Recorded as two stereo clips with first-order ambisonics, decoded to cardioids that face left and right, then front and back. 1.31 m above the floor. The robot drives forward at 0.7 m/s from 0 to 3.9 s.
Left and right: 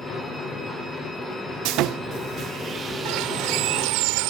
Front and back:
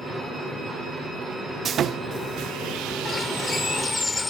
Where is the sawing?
115° right; by 4.0 s 160° right.